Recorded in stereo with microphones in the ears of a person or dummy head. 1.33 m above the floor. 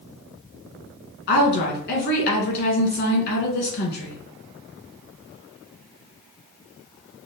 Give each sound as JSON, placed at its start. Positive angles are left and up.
{"t": 1.3, "sound": "a woman speaking", "side_deg": 55, "distance_m": 1.6}